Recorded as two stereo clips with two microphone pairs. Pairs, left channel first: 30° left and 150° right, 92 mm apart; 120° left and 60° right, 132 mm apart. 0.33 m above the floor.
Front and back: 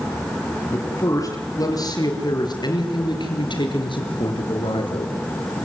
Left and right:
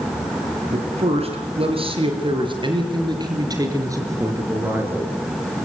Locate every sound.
0.7 s a man speaking: 25° right, 6 m; by 5.1 s 15° left, 5 m